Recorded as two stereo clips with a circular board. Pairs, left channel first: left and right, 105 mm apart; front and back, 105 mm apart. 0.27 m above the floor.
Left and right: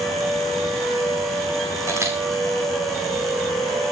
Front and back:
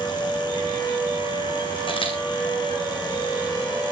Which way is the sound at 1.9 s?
30° right.